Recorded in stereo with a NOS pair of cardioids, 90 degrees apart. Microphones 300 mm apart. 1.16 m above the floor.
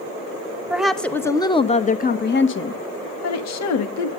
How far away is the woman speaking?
About 1.5 m.